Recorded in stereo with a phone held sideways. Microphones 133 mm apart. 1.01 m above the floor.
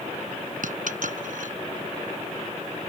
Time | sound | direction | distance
0.6 | a dropped coin | 80° right | ?